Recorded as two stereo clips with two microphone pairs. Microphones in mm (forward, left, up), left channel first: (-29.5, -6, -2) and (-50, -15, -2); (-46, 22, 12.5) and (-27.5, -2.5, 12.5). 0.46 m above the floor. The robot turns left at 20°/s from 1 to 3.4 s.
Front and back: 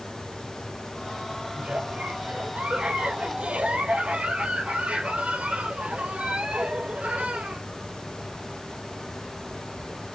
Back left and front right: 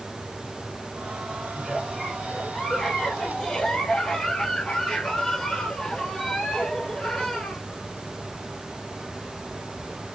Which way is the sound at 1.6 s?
135° right.